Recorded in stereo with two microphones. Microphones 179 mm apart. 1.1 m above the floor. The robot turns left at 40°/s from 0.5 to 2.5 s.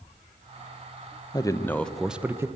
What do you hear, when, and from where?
1.3 s a man speaking: 25° left, 0.8 m; by 2.5 s 20° right, 0.8 m